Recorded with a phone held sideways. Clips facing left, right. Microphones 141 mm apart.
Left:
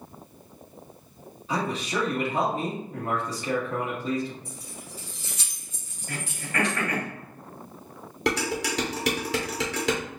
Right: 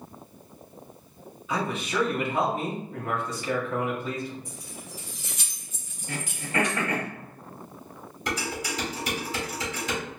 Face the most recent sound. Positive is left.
turn(degrees=75)  # may be behind; listen again after turning